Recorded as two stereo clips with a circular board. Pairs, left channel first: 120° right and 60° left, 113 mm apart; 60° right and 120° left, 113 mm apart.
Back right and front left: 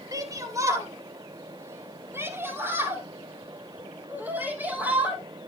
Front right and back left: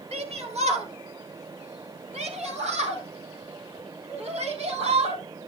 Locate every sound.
0.1 s a shout: 115° left, 3.5 m; by 5.5 s 140° left, 7.5 m